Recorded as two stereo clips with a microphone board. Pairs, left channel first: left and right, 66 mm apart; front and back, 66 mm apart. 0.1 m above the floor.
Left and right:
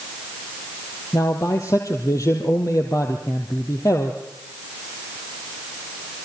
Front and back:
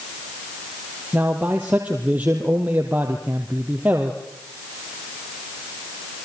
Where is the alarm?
I don't hear an alarm.